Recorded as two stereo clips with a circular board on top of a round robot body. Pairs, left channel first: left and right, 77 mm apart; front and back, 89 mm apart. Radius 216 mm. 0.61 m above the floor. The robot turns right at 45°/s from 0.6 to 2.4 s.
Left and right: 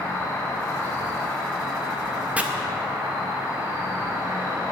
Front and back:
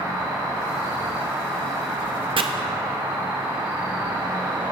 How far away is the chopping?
About 0.5 m.